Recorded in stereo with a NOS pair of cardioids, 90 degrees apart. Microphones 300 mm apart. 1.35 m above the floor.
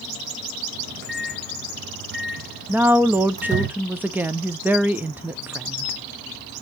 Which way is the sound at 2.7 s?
5° right.